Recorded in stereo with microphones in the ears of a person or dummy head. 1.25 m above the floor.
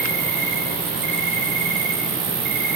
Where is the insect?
60° right (ahead or behind), 4.5 m.